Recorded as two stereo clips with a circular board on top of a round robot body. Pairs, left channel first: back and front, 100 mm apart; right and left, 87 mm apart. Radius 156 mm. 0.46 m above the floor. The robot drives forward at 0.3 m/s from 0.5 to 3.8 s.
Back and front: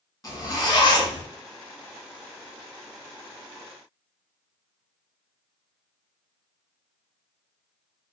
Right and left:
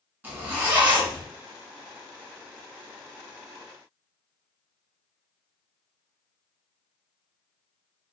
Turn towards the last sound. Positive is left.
turn(degrees=165)